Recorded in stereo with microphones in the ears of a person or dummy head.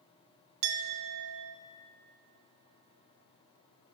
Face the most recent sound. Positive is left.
turn(degrees=-65)  # may be behind; listen again after turning